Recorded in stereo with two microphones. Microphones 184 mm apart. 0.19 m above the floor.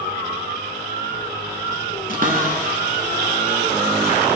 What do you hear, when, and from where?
2.1 s a cupboard door: 50° right (ahead or behind), 1.2 m